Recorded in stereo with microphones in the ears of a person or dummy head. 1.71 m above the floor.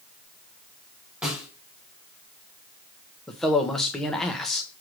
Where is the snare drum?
Centre (ahead or behind), 4 m.